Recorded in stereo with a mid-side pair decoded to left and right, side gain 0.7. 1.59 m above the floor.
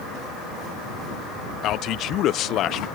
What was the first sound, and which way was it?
A man speaking, 50° left.